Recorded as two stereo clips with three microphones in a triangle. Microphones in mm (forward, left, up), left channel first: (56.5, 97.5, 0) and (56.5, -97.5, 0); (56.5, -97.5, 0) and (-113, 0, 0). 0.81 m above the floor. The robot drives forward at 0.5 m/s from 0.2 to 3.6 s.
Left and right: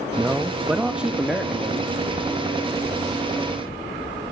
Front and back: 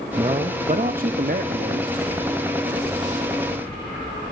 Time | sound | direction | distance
0.2 | a man speaking | 170° right | 0.6 m